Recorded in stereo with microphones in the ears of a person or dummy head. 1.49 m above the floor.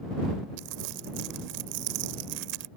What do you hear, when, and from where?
0.6 s crumpling: 60° right (ahead or behind)